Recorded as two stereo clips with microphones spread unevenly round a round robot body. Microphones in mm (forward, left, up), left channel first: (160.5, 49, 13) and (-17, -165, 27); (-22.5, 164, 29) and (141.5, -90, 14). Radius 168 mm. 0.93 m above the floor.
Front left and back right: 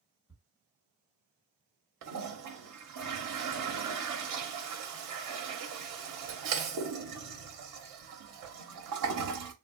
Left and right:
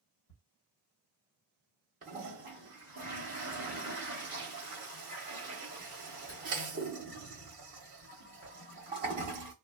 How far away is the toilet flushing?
About 0.8 m.